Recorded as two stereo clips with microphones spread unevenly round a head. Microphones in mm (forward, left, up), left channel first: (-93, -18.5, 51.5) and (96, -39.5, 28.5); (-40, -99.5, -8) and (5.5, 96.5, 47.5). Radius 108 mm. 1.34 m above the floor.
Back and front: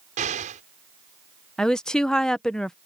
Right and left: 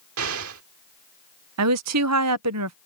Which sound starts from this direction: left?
A woman speaking, at 1.6 s.